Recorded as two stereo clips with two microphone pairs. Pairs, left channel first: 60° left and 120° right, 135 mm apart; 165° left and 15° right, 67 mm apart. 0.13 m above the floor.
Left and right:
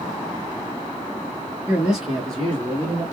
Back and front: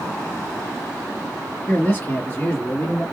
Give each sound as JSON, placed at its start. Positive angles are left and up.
{"t": 1.7, "sound": "a man speaking", "azimuth_deg": 165, "distance_m": 1.8}